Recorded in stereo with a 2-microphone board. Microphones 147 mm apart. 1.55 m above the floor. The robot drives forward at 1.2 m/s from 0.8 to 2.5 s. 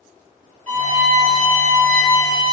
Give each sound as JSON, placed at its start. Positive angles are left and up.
{"t": 0.7, "sound": "a violin", "side_deg": -55, "distance_m": 2.0}